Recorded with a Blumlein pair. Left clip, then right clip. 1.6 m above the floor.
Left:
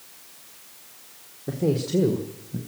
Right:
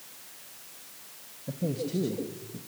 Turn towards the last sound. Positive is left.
turn(degrees=40)